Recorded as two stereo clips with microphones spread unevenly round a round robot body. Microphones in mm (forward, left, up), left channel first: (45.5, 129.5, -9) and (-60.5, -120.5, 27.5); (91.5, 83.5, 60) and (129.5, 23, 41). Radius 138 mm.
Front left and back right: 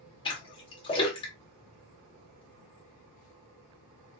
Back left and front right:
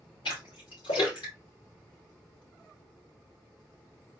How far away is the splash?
About 2 m.